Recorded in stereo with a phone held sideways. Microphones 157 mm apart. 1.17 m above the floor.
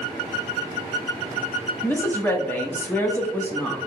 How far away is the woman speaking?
About 0.7 m.